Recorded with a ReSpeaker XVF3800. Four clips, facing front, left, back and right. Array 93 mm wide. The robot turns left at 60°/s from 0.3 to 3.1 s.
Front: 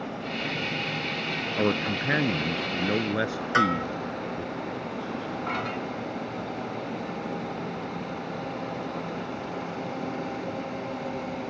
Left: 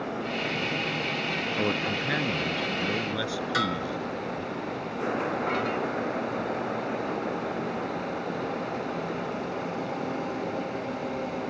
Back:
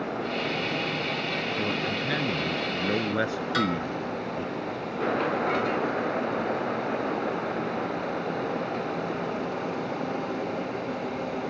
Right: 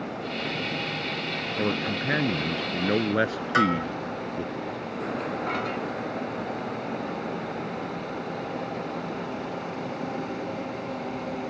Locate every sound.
1.6 s a man speaking: straight ahead; by 4.5 s 90° right
3.5 s a bell: 40° right